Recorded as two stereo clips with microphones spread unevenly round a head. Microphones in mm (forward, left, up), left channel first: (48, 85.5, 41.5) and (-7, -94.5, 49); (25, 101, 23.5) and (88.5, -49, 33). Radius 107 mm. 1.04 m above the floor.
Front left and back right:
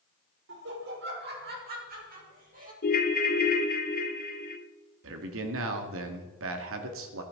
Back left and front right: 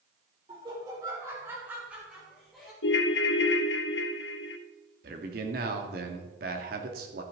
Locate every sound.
0.5 s laughter: 135° right, 3.5 m; by 2.7 s 160° right, 4.5 m
2.8 s a ringtone: 120° left, 0.9 m
5.0 s a man speaking: 115° right, 2.0 m